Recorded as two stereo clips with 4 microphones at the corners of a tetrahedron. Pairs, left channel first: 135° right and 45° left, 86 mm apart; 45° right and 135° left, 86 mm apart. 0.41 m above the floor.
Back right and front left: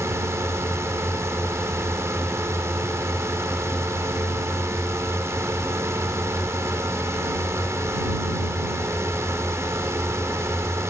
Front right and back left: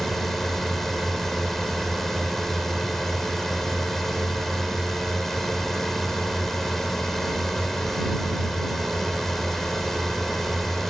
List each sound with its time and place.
0.0 s a drone: 40° left